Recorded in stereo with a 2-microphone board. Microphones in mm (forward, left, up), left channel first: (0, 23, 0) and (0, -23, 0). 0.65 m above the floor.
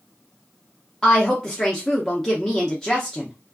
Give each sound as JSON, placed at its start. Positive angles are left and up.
{"t": 1.0, "sound": "a woman speaking", "side_deg": 10, "distance_m": 0.5}